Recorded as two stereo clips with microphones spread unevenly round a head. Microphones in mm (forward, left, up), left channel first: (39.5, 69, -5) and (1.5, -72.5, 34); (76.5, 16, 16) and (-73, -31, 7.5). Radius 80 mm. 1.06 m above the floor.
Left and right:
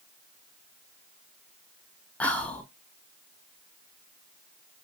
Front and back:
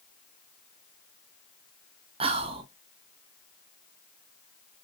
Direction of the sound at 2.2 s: 145° left.